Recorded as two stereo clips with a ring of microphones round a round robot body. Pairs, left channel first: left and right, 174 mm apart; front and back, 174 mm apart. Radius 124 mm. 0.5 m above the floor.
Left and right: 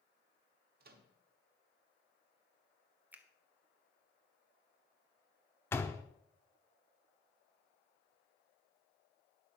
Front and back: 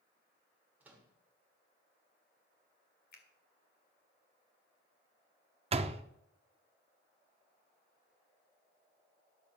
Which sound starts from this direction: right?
A microwave, at 0.8 s.